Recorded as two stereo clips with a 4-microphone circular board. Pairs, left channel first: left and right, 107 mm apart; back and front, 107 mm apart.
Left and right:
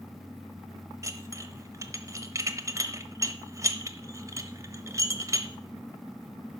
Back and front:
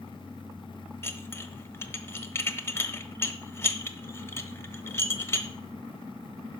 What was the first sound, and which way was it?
Dishes clattering, 130° right.